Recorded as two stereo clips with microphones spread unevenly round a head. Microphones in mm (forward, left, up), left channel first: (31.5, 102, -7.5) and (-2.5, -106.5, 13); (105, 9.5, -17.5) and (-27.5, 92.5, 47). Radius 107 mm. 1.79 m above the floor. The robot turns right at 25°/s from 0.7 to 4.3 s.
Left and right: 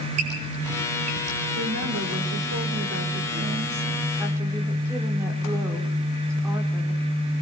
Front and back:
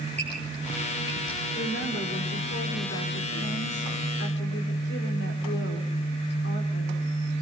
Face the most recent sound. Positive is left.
turn(degrees=-25)